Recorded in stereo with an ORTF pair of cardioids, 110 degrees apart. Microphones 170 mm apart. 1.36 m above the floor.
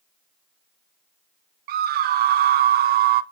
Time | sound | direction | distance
1.7 | a scream | 65° right | 0.8 m